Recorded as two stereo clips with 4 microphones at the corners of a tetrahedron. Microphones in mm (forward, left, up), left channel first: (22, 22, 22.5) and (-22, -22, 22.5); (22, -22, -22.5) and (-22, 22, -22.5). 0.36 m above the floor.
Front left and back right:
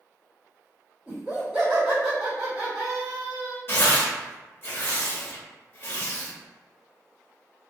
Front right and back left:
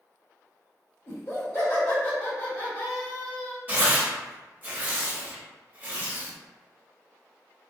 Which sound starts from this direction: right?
Laughter, at 1.1 s.